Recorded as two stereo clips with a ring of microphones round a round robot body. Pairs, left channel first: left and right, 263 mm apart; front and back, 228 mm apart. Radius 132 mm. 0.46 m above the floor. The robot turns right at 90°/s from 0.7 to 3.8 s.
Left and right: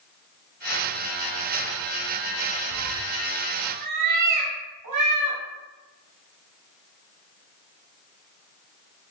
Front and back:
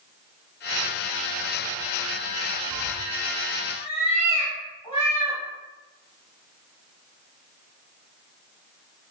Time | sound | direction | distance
2.7 | a cat meowing | 170° right | 0.8 m